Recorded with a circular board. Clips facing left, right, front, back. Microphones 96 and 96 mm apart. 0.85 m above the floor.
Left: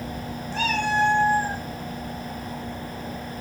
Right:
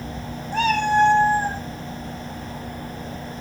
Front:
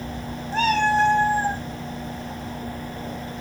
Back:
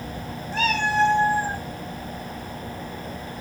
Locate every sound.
0.5 s a cat meowing: 55° right, 2 m; by 1.6 s 40° right, 1.9 m